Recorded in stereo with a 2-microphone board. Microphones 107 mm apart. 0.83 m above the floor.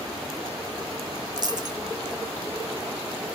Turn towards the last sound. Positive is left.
turn(degrees=-40)  # may be behind; listen again after turning